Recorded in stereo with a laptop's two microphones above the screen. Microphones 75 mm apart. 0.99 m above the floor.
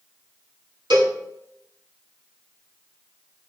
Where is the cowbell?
80° right, 2.5 m.